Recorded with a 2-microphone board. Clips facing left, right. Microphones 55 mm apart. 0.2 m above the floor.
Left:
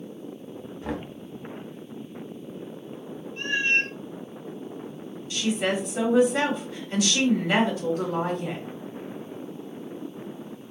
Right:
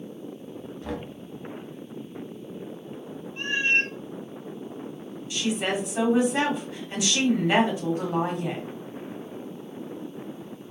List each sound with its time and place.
0.8 s knocking: 20° left (ahead or behind), 0.7 m
3.4 s a cat meowing: 15° right (ahead or behind), 0.6 m
5.3 s a woman speaking: 20° right (ahead or behind), 1.2 m